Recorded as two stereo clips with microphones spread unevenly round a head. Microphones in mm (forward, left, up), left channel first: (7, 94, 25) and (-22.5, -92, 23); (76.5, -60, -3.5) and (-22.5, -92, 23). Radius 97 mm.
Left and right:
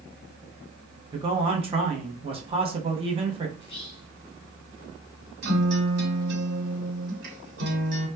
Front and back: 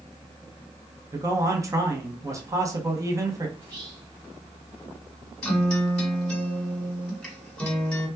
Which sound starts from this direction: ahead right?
A guitar, at 5.4 s.